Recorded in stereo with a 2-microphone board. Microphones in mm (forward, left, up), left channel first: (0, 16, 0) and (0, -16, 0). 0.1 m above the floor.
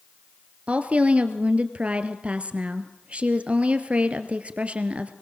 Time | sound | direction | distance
0.7 | a woman speaking | 40° right (ahead or behind) | 1.9 m